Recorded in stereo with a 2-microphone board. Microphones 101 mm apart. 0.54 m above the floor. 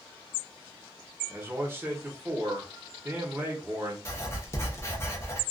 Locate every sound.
1.3 s a man speaking: 25° right (ahead or behind), 0.8 m
4.0 s writing: 25° left (ahead or behind), 0.7 m